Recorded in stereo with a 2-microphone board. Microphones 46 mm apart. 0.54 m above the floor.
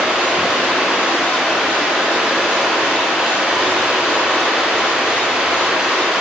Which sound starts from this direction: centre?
Running water, at 0.0 s.